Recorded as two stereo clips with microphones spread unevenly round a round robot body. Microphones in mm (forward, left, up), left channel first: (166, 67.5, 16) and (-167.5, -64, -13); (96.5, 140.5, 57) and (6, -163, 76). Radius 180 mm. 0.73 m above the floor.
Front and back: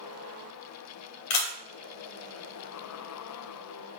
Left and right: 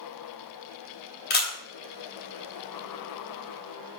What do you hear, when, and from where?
1.3 s a camera shutter: 15° left, 2.5 m